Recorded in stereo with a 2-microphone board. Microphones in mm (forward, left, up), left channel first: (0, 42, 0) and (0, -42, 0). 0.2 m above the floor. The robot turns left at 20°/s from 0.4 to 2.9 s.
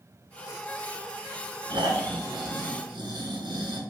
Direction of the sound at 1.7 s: 65° right (ahead or behind).